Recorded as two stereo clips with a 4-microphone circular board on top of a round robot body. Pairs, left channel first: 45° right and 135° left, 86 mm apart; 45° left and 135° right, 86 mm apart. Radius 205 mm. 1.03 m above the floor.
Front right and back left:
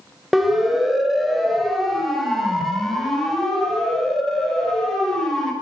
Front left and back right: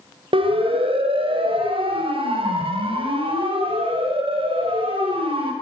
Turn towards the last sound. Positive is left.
turn(degrees=-130)